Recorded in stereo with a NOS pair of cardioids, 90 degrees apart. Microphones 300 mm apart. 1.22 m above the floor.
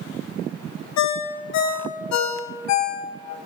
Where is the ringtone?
65° left, 0.8 m.